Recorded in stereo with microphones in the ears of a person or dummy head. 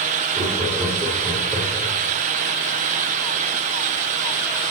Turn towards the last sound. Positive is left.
turn(degrees=-5)  # may be behind; listen again after turning